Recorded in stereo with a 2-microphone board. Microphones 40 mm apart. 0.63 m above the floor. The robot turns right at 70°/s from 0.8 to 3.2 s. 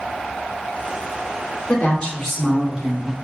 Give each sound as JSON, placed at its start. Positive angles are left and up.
{"t": 1.7, "sound": "a woman speaking", "azimuth_deg": 135, "distance_m": 1.5}